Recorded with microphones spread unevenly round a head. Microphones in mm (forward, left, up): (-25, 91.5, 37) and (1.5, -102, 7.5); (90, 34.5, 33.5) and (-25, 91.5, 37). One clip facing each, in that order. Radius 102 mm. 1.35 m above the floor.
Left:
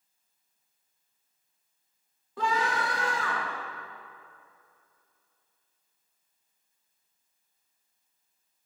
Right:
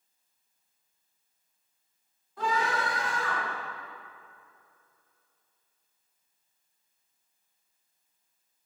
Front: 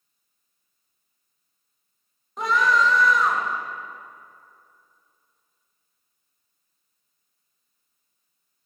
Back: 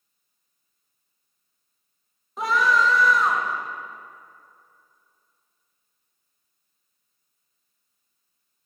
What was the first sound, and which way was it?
A scream, 65° left.